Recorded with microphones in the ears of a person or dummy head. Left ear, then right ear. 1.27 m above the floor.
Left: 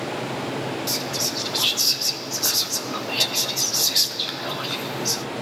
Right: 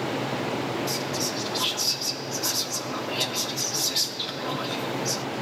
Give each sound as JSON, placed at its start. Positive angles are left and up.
{"t": 0.9, "sound": "whispering", "side_deg": 15, "distance_m": 0.8}